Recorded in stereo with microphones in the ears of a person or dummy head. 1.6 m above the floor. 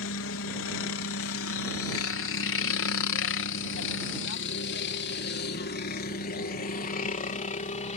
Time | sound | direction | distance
0.0 | a helicopter | 60° left (ahead or behind) | ?